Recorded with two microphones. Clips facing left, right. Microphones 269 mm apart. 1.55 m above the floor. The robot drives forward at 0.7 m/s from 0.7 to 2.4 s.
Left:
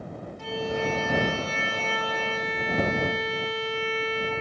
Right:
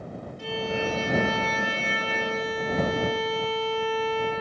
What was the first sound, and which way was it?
A violin, 40° right (ahead or behind).